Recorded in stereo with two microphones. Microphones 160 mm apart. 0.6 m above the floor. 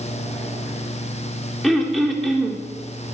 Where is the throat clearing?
Centre (ahead or behind), 0.9 m.